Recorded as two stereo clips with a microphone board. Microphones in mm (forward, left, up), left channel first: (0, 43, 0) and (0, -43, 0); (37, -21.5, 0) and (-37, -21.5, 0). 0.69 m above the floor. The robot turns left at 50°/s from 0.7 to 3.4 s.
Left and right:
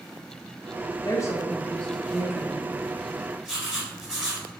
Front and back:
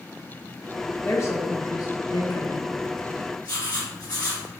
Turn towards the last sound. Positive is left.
turn(degrees=-10)